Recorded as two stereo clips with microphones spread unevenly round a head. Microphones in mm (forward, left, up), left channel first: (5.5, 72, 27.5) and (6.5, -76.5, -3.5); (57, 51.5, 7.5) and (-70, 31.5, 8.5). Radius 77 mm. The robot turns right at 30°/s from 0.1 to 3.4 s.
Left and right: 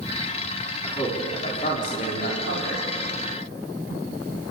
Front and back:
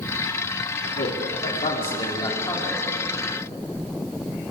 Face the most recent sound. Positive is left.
turn(degrees=100)